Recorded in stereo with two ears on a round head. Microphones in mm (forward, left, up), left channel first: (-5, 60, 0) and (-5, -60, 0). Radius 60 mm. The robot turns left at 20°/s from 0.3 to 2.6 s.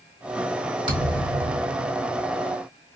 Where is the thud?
45° right (ahead or behind), 1.9 m; by 2.1 s 60° right (ahead or behind), 1.9 m.